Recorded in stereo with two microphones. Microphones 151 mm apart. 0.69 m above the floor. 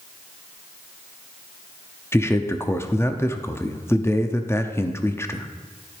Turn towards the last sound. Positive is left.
turn(degrees=15)  # may be behind; listen again after turning